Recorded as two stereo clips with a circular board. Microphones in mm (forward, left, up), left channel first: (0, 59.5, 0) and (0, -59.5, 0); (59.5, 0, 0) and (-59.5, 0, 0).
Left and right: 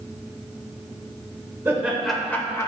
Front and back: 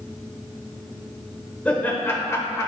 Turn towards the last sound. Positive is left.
turn(degrees=50)